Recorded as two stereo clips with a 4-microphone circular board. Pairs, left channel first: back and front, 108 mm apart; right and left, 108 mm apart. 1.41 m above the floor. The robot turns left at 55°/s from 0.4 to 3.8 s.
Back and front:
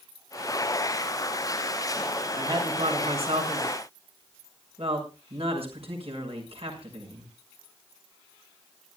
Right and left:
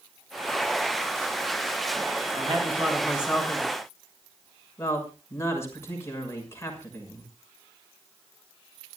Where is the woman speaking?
55° left, 6 m; by 7.3 s 25° right, 6 m.